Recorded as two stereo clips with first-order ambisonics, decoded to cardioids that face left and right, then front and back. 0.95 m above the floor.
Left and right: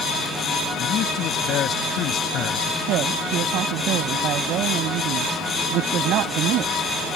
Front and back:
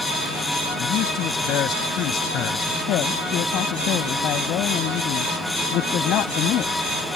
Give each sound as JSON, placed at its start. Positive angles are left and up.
{"t": 0.8, "sound": "a man speaking", "azimuth_deg": 45}
{"t": 2.9, "sound": "a woman speaking", "azimuth_deg": -45}